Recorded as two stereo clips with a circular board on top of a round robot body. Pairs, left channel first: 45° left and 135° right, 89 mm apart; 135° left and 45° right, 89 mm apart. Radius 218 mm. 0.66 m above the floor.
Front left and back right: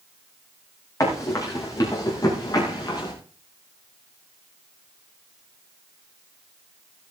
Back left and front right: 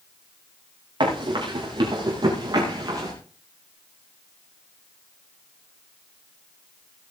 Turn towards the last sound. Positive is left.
turn(degrees=0)